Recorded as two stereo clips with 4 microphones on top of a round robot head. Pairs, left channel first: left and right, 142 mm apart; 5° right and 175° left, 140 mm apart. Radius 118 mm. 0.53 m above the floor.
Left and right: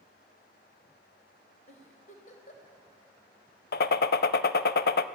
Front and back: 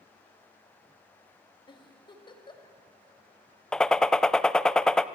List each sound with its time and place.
1.7 s a giggle: 50° left, 3 m
3.7 s a gunshot: 80° left, 0.5 m